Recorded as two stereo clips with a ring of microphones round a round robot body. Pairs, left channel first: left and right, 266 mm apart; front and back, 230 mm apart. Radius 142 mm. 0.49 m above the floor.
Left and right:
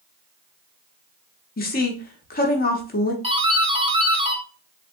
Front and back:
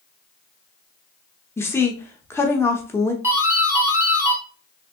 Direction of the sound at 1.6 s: 70° left.